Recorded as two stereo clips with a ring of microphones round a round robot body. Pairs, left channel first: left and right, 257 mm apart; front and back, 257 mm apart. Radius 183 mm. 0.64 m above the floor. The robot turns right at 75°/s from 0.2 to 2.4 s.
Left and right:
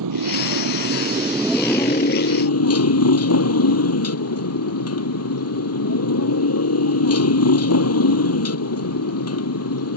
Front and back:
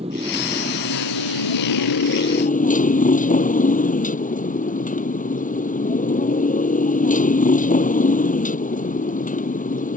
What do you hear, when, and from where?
0.0 s a motorcycle: 105° right; by 10.0 s 60° left